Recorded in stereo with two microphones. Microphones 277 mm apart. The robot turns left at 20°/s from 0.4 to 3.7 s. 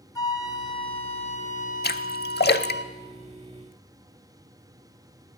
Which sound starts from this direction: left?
A splash, at 1.8 s.